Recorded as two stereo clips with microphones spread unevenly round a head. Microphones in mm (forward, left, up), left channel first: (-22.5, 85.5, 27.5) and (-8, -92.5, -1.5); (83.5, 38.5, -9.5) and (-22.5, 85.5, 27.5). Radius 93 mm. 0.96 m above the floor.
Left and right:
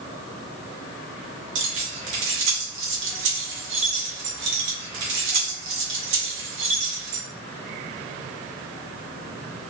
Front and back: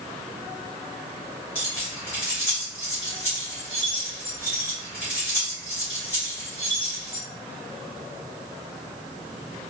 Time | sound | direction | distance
1.6 | keys jangling | 105° right | 1.4 m